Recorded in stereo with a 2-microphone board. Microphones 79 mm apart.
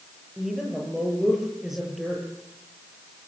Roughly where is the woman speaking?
Centre.